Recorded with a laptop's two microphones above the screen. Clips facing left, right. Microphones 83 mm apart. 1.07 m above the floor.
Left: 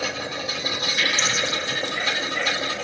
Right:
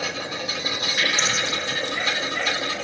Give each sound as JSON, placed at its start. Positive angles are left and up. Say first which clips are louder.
{"t": 1.0, "sound": "dripping", "louder": "right 1 dB", "side_deg": -55, "distance_m": 2.5}